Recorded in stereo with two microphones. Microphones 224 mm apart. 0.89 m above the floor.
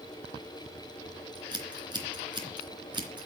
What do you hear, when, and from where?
1.4 s scissors: 20° right (ahead or behind), 3 m